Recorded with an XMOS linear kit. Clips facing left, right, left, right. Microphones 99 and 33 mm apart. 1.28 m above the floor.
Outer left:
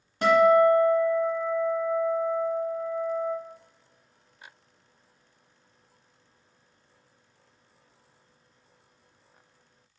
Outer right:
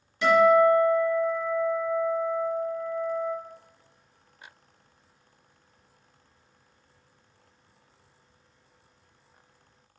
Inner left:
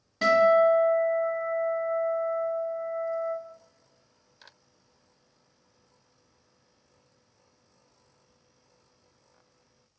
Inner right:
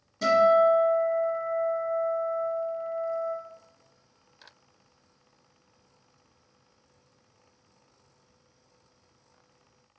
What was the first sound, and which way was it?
A guitar, 45° left (ahead or behind).